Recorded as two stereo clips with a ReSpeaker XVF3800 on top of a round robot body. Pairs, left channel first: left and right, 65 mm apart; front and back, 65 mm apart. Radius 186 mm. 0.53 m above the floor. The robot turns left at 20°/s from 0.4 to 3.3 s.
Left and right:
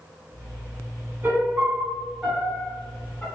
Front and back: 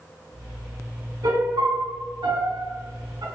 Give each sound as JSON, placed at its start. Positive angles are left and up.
{"t": 1.2, "sound": "a piano", "azimuth_deg": -155, "distance_m": 1.3}